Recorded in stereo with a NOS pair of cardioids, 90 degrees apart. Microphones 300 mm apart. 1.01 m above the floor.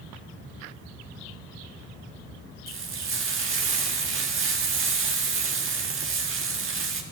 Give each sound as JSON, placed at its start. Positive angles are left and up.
{"t": 2.7, "sound": "frying", "azimuth_deg": -45, "distance_m": 1.5}